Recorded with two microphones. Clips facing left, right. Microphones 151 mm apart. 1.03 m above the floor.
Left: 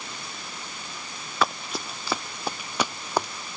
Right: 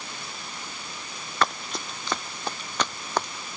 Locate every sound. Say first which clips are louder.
1.4 s running footsteps: left 1 dB; 5° left (ahead or behind); by 3.3 s 10° left (ahead or behind)